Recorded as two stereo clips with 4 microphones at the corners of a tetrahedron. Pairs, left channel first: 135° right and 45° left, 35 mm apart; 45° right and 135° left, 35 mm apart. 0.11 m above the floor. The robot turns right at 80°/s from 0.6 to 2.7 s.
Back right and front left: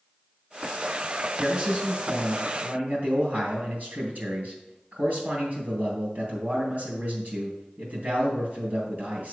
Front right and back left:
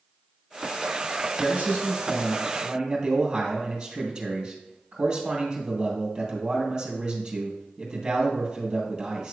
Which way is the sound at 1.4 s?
40° right.